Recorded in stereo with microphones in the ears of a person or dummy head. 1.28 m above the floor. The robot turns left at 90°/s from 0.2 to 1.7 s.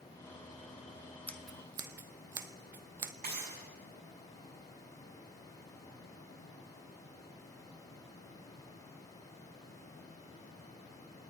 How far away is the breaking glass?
About 7.5 m.